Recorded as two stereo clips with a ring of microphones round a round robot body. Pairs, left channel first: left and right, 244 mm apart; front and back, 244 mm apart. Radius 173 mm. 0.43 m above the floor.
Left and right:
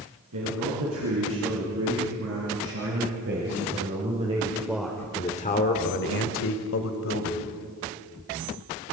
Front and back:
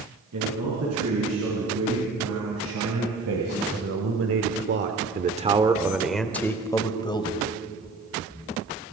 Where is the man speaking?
135° right, 6 m; by 7.5 s 70° left, 3 m.